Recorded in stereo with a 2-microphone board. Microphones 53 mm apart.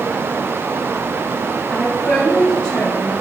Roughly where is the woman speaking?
Centre.